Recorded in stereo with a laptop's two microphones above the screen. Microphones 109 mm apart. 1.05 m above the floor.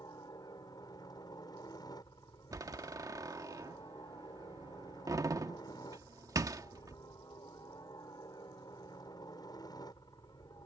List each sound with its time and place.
0.0 s a helicopter: 35° left (ahead or behind)
2.5 s a door slam: 35° right (ahead or behind)